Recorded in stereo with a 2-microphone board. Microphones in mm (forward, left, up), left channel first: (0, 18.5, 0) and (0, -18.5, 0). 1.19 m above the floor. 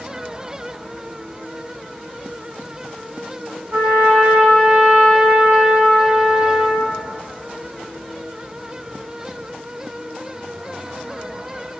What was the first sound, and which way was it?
A trumpet, 70° right (ahead or behind).